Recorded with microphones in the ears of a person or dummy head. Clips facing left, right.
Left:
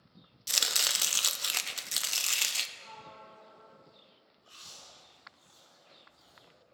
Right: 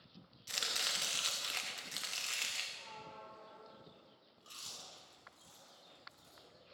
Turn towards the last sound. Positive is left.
turn(degrees=-60)  # may be behind; listen again after turning